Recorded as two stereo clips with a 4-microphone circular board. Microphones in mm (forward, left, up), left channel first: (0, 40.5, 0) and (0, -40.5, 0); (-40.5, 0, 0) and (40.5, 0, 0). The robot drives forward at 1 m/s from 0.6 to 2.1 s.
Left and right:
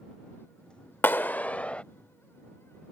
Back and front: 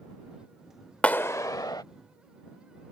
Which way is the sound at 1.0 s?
120° left.